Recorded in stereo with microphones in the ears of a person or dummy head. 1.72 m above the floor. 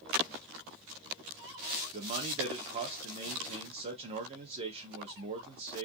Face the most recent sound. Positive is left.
turn(degrees=-30)  # may be behind; listen again after turning